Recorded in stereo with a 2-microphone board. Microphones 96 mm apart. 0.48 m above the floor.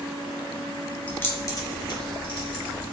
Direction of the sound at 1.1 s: 15° left (ahead or behind).